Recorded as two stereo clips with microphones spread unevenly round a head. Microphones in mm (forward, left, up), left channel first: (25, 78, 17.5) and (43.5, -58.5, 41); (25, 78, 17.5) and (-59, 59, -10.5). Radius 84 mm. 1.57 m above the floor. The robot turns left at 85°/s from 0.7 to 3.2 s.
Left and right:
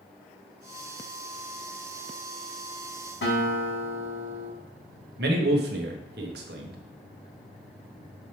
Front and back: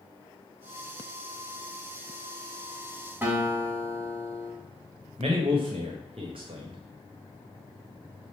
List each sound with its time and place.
3.2 s a guitar: 115° left, 3 m
5.2 s a man speaking: 115° right, 1.2 m